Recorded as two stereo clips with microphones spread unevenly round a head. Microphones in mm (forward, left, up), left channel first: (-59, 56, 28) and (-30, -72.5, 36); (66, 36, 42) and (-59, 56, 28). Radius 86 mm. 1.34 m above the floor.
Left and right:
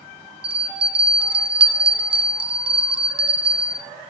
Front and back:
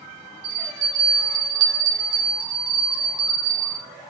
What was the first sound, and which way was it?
A bell, 125° right.